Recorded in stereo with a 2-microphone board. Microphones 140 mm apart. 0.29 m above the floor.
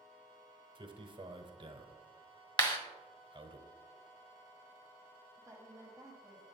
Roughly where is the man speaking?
Right.